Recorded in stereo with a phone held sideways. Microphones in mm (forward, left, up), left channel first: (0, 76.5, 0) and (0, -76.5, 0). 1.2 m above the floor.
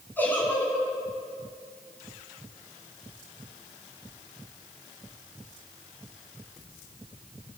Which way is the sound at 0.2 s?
15° left (ahead or behind).